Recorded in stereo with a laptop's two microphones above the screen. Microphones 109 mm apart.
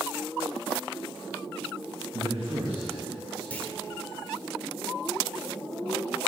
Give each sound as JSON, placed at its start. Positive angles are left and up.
{"t": 2.1, "sound": "a man speaking", "side_deg": -70, "distance_m": 1.6}
{"t": 3.5, "sound": "a clunk", "side_deg": 15, "distance_m": 1.7}